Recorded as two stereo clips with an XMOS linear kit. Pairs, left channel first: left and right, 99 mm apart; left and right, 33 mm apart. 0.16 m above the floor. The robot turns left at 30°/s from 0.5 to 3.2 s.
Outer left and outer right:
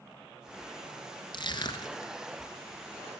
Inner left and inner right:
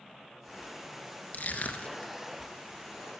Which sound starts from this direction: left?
Crushing, at 1.3 s.